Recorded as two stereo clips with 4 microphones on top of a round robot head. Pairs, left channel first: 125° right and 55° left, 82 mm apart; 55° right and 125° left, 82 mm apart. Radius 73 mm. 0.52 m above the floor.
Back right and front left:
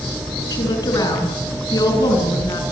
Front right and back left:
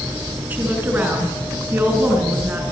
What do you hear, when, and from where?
0.5 s a woman speaking: 165° right, 7 m